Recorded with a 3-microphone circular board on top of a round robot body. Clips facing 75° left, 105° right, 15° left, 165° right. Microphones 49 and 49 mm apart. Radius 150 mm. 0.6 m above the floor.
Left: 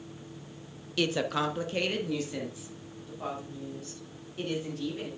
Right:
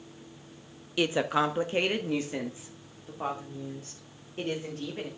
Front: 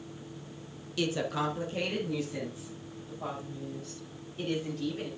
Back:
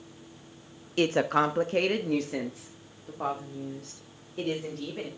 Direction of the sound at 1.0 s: 170° right.